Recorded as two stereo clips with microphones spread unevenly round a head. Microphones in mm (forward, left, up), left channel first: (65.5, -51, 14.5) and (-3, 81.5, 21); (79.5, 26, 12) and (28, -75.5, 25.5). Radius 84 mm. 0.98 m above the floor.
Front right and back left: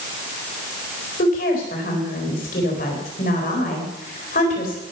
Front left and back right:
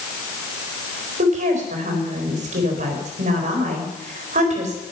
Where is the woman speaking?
105° right, 4 m.